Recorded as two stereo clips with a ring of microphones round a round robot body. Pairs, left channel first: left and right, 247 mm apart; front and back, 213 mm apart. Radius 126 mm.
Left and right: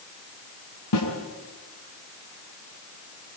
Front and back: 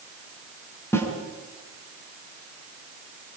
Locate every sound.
0.9 s a snare drum: 80° left, 6 m